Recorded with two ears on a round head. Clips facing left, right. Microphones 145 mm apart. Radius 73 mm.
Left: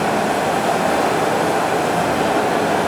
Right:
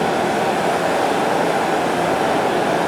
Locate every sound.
0.0 s running water: 55° left (ahead or behind), 1.2 m